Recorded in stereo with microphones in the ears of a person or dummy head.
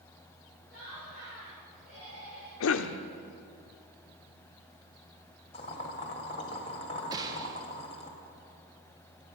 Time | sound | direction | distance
0.7 | laughter | 90° right | 5.5 m
2.6 | a cough | 70° left (ahead or behind) | 0.6 m
5.5 | boiling | 35° left (ahead or behind) | 1.5 m
7.1 | a gunshot | 20° right (ahead or behind) | 1.0 m